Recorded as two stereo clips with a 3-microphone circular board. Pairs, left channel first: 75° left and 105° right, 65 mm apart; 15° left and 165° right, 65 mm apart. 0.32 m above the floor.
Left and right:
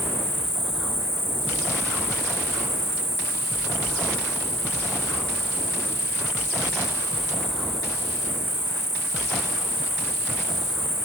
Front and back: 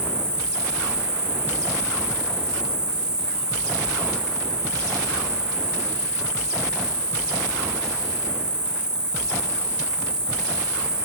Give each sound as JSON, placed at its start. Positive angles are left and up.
{"t": 0.0, "sound": "an insect", "azimuth_deg": 120, "distance_m": 2.0}